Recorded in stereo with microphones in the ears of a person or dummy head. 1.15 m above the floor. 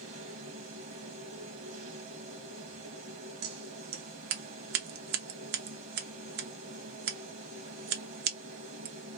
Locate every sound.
0.0 s a machine running: 50° right (ahead or behind), 0.8 m
3.4 s scissors: 50° right (ahead or behind), 0.8 m